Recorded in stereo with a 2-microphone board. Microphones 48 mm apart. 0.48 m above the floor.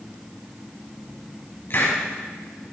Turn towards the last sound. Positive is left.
turn(degrees=50)  # may be behind; listen again after turning